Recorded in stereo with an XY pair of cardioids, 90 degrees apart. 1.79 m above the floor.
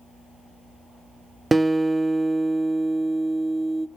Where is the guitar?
25° right, 0.7 m.